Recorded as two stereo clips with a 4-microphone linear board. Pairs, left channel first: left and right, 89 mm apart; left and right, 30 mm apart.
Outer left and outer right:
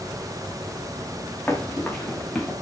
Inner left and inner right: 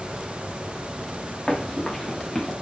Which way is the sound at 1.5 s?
20° left (ahead or behind).